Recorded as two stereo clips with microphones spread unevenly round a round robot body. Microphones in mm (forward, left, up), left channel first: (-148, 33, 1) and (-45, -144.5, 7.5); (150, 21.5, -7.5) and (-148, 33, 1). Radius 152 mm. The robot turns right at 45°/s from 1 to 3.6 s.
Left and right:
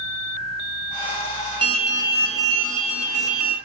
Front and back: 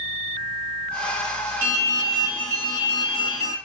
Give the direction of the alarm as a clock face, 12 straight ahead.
4 o'clock.